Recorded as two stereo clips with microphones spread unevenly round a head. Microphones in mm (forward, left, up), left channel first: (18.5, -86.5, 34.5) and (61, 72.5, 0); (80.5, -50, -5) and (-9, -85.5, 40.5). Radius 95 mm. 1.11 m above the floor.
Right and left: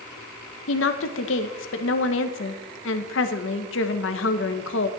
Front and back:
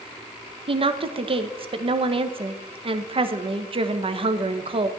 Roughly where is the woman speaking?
Behind right.